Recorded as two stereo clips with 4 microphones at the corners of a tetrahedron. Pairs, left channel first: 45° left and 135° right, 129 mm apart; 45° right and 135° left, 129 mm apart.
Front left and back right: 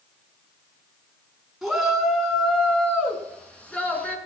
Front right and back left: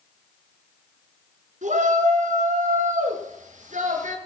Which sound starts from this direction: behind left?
A shout, at 1.6 s.